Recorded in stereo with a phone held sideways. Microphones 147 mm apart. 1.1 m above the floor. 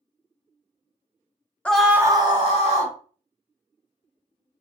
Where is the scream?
10° left (ahead or behind), 0.5 m; by 2.9 s 55° right (ahead or behind), 0.9 m.